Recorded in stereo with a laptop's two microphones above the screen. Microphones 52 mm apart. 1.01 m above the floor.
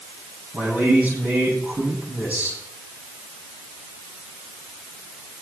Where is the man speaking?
35° right (ahead or behind), 9 m.